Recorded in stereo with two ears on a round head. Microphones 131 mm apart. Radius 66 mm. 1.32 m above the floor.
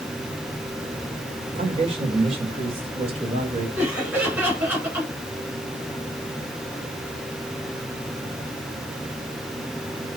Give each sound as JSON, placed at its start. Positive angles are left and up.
{"t": 1.6, "sound": "a man speaking", "side_deg": -40, "distance_m": 4.5}
{"t": 3.8, "sound": "laughter", "side_deg": -15, "distance_m": 8.5}